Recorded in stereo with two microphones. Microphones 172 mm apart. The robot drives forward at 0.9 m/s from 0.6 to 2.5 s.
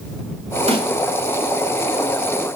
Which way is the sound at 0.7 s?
35° right (ahead or behind).